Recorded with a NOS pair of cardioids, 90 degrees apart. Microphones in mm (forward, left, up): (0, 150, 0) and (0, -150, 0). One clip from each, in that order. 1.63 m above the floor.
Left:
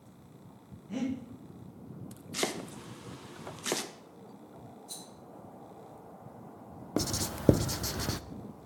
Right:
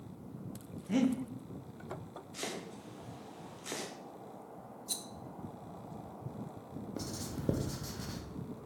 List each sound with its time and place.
0.9 s breathing: 45° right, 1.6 m
2.3 s chopping: 60° left, 1.0 m
4.9 s a rattle: 45° right, 1.1 m
7.0 s writing: 55° left, 0.5 m